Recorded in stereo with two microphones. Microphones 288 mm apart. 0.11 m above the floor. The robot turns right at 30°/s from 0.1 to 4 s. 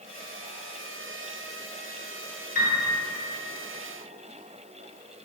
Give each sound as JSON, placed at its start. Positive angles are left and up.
{"t": 2.5, "sound": "a piano", "side_deg": 35, "distance_m": 0.8}